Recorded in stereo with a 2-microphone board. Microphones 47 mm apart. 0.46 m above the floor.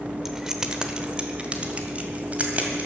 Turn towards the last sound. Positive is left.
turn(degrees=-30)  # may be behind; listen again after turning